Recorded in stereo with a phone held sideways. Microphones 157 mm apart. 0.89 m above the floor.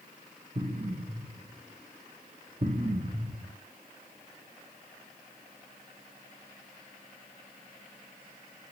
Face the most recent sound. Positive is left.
turn(degrees=-50)  # may be behind; listen again after turning